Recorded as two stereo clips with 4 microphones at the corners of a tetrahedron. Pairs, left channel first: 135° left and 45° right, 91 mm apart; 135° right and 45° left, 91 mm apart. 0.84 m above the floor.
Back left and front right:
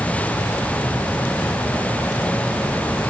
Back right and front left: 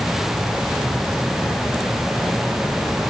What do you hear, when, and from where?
Only background noise.